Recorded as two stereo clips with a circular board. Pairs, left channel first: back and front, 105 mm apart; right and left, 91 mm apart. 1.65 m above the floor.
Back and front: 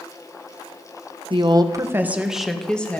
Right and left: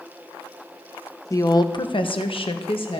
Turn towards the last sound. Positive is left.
turn(degrees=-105)